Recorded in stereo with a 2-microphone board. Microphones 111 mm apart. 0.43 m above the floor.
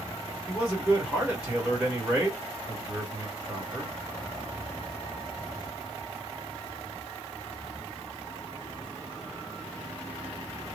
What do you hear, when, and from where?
0.5 s a man speaking: 10° right (ahead or behind), 1.7 m